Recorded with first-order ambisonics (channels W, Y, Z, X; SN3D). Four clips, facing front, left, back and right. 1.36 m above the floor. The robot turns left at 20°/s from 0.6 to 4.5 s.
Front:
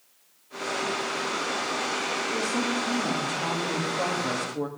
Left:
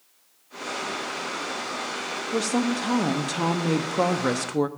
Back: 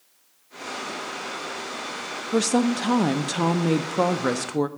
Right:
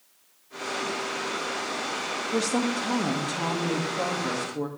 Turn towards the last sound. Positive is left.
turn(degrees=135)